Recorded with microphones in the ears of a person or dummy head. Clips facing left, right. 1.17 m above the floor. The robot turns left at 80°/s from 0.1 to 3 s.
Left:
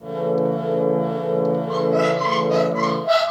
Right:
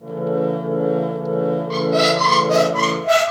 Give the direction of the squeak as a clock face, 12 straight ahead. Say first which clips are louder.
Right 2 dB; 1 o'clock.